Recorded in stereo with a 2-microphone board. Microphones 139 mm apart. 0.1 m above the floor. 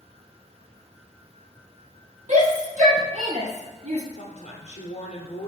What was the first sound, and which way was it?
A shout, 60° right (ahead or behind).